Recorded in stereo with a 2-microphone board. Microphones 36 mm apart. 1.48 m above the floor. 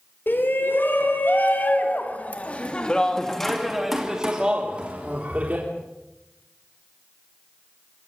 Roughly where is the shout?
Left.